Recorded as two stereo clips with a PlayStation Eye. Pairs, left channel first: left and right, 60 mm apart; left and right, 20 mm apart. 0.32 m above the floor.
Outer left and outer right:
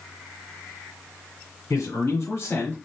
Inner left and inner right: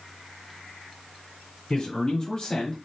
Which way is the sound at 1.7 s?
65° left (ahead or behind).